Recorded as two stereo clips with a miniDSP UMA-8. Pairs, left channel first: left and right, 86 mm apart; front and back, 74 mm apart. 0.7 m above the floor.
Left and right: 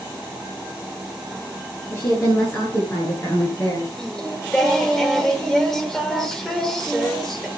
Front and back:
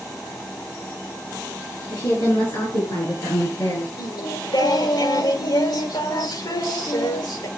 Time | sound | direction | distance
1.9 | a woman speaking | 30° left | 7 m
4.0 | singing | 5° left | 2 m